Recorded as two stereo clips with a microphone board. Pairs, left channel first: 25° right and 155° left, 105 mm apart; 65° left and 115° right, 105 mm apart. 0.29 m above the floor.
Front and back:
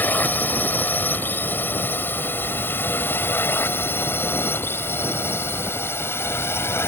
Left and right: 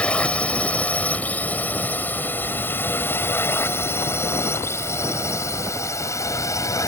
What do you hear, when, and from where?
0.0 s a drone: 10° left; by 6.9 s 30° left